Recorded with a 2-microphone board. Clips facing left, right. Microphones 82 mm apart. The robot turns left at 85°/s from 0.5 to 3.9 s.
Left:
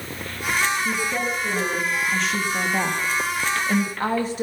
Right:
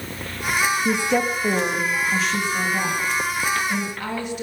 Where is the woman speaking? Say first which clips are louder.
Right 4 dB; 60° right, 2.5 m; by 4.4 s 40° left, 2.5 m.